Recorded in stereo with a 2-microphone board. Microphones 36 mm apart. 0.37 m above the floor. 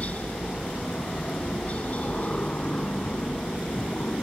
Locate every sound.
0.0 s a helicopter: 40° left (ahead or behind)